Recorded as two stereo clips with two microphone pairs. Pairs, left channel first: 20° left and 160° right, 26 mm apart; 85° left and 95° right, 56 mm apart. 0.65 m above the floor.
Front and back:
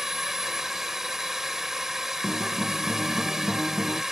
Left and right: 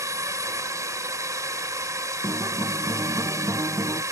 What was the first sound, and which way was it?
A drone, 90° right.